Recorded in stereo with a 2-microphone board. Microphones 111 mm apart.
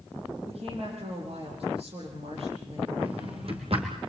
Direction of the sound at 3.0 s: 55° right (ahead or behind).